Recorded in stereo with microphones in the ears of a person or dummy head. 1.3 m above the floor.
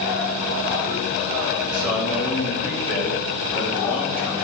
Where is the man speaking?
Centre (ahead or behind), 6 m.